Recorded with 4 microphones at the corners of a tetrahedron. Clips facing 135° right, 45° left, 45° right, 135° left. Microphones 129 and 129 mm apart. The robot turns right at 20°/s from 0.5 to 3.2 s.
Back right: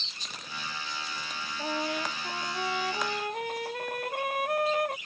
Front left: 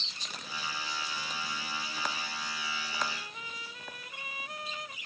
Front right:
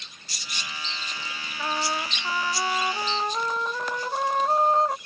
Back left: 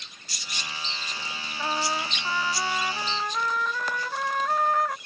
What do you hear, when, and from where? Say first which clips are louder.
1.6 s a trumpet: back right 7 dB, even; 140° right; by 5.0 s 110° right